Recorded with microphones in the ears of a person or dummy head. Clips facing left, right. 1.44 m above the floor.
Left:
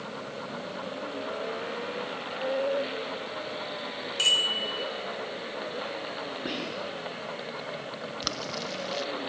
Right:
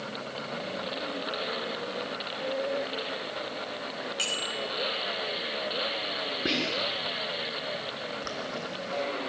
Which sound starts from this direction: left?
Boiling, at 8.2 s.